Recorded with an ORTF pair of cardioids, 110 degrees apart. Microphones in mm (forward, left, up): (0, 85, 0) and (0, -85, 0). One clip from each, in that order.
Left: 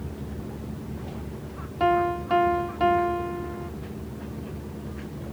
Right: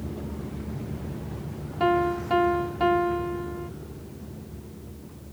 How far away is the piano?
About 0.5 m.